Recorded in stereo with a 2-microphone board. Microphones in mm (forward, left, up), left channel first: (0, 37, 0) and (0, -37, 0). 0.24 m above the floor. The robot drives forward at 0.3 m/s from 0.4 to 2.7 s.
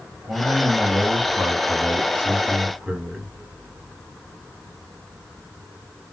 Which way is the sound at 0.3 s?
15° right (ahead or behind).